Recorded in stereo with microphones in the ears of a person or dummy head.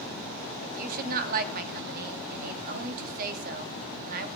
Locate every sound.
0.6 s a woman speaking: 55° right (ahead or behind), 3 m